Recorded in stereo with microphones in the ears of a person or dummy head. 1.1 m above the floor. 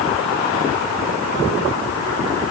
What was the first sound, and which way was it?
Only background noise.